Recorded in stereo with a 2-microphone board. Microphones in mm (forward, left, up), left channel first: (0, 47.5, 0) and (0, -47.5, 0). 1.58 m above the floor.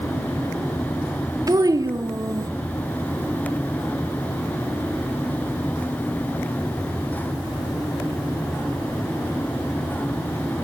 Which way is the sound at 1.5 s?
40° right (ahead or behind).